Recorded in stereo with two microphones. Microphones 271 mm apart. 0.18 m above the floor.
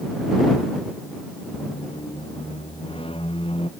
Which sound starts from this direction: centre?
A squeak, at 1.5 s.